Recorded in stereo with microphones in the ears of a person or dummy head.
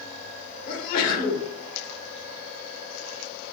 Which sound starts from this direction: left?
A sneeze, at 0.7 s.